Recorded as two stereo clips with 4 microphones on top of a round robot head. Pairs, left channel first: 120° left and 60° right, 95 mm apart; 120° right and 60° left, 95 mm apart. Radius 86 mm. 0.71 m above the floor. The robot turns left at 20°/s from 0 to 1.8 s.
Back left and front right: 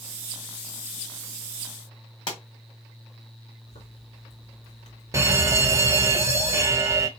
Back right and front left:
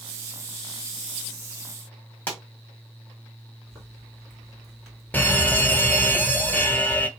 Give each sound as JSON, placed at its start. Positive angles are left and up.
{"t": 2.3, "sound": "a pop", "azimuth_deg": 165, "distance_m": 2.0}
{"t": 3.7, "sound": "a zipper", "azimuth_deg": 150, "distance_m": 2.5}
{"t": 5.1, "sound": "an alarm", "azimuth_deg": -65, "distance_m": 1.1}